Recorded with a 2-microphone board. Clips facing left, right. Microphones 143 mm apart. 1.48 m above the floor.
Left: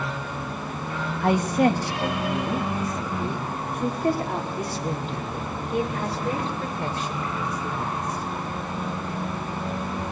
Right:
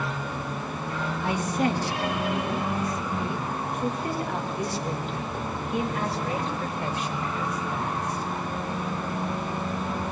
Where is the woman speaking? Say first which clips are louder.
Left 6 dB; 60° left (ahead or behind), 2.5 m; by 8.2 s 30° left (ahead or behind), 7.5 m.